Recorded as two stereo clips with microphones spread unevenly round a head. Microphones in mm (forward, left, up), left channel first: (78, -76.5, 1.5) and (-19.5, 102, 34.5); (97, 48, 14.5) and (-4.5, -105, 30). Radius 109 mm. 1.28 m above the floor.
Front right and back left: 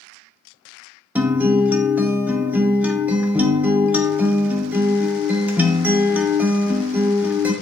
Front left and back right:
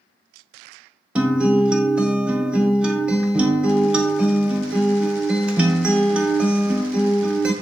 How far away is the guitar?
About 0.6 m.